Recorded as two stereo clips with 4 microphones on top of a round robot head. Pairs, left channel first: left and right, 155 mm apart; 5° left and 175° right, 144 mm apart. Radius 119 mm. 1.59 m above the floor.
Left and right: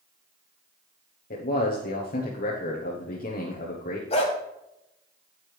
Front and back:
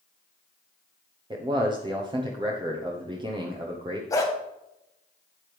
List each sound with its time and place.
1.3 s a man speaking: 130° left, 1.3 m
4.1 s a dog barking: 60° left, 1.2 m